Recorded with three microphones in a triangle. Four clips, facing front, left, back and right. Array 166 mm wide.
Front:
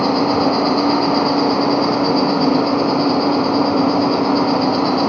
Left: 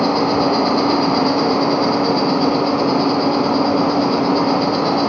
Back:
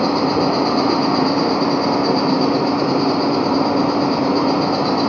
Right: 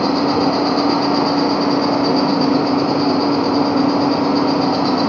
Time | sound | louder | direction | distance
0.0 | an insect | even, front 1 dB | 60° left | 1.3 m